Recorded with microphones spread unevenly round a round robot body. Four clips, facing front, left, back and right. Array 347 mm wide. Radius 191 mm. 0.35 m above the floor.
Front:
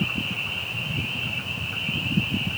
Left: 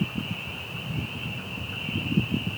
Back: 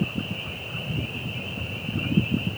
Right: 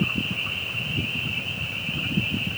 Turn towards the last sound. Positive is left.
No sound to turn to.